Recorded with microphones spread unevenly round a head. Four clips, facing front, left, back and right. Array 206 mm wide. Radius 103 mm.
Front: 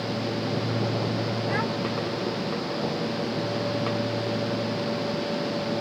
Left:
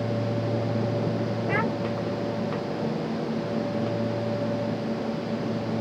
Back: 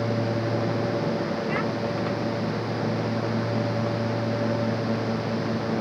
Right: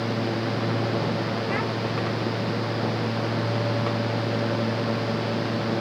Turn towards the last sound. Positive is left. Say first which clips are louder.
# left 4 dB, back 1 dB
turn(degrees=80)